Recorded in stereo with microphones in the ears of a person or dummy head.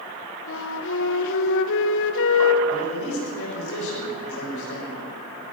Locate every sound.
0.5 s a flute: 70° left (ahead or behind), 1.6 m
2.7 s a man speaking: 65° left (ahead or behind), 7.5 m